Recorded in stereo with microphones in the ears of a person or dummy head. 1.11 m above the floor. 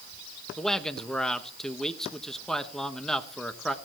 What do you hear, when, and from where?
0.6 s a man speaking: 5° right (ahead or behind), 1.2 m